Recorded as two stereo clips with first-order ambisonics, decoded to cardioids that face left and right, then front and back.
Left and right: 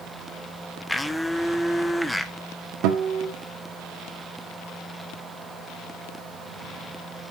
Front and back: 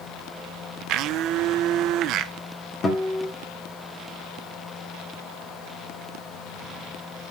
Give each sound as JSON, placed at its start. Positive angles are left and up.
{"t": 0.9, "sound": "a blender", "azimuth_deg": 175, "distance_m": 0.6}
{"t": 2.8, "sound": "a guitar", "azimuth_deg": -70, "distance_m": 2.0}